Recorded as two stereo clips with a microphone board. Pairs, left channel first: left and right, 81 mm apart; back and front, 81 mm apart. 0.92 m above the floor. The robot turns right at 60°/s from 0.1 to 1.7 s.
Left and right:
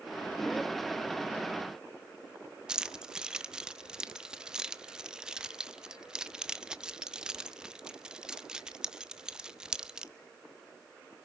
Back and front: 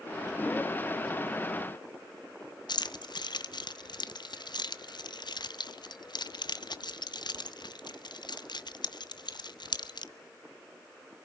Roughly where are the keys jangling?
Behind.